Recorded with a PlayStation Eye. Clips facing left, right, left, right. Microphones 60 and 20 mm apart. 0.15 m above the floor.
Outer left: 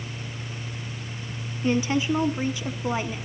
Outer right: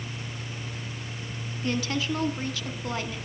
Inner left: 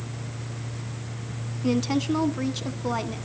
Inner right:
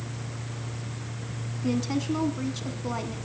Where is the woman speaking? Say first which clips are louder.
Outer left 5 dB, inner left 3 dB; 20° left (ahead or behind), 1.1 m.